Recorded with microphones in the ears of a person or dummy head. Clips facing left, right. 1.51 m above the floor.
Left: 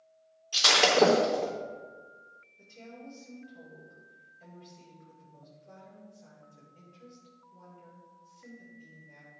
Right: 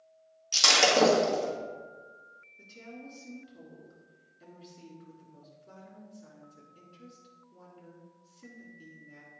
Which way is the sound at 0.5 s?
70° right (ahead or behind).